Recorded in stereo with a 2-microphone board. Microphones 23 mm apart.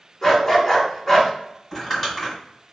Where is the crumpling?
5° left (ahead or behind), 1.9 m.